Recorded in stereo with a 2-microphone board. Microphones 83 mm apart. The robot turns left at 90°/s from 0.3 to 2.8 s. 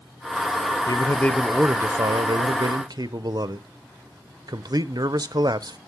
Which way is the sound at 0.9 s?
50° left.